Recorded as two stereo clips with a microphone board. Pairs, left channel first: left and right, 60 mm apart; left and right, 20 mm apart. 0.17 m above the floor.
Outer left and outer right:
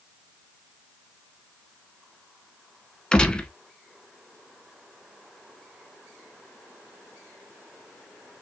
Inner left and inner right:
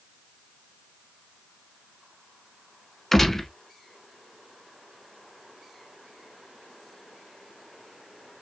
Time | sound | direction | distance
3.1 | a gunshot | 15° left (ahead or behind) | 0.8 m